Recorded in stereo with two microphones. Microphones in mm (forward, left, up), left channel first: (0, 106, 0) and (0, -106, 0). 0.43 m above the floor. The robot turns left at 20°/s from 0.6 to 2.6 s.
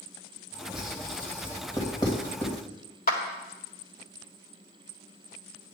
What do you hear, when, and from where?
0.7 s writing: centre (ahead or behind), 2.5 m; by 2.6 s 30° left (ahead or behind), 2.5 m
3.1 s a clap: 45° left (ahead or behind), 1.7 m